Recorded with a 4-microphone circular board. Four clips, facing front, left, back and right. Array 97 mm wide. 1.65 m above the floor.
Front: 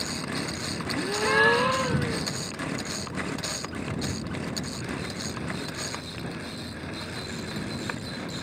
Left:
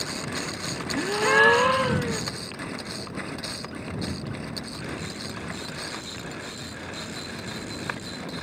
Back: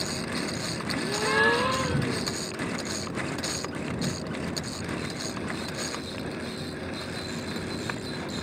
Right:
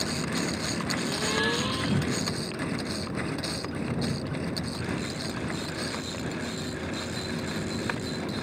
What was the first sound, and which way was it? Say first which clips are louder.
A gasp: left 11 dB, front 2 dB; 80° left.